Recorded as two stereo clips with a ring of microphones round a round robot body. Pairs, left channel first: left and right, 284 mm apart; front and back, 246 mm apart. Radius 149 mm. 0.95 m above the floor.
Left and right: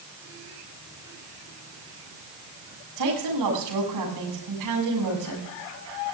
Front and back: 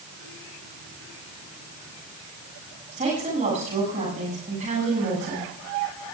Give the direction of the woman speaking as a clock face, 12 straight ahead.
4 o'clock.